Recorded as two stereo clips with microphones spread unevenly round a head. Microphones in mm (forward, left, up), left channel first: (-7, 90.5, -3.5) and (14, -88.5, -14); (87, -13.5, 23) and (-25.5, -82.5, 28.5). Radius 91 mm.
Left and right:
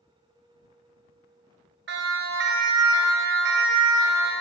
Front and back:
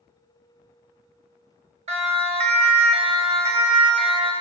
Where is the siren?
110° right, 6.5 m; by 4.3 s 105° right, 7.5 m.